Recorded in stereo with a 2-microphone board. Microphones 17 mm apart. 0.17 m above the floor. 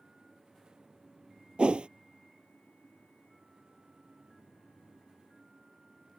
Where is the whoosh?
75° right (ahead or behind).